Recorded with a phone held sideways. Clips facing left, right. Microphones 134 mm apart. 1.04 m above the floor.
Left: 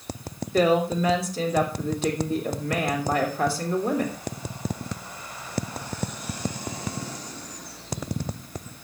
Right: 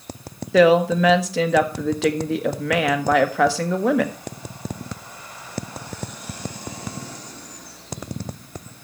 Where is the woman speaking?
75° right (ahead or behind), 1.4 m.